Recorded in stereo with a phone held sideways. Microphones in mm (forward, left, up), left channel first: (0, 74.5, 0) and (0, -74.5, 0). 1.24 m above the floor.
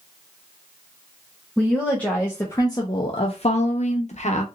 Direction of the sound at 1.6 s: 5° left (ahead or behind).